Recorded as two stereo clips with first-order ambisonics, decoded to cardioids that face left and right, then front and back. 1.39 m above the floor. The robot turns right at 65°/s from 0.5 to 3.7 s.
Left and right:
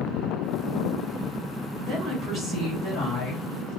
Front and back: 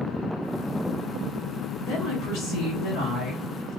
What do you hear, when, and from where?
1.8 s a woman speaking: 25° right, 1.6 m; by 3.8 s 100° left, 1.6 m